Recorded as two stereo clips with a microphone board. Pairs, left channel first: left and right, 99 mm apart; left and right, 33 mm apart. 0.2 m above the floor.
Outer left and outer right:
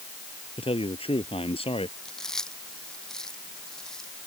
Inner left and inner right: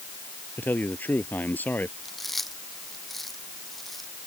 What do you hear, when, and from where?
0.6 s a man speaking: 75° left (ahead or behind)
2.0 s chewing: 5° left (ahead or behind)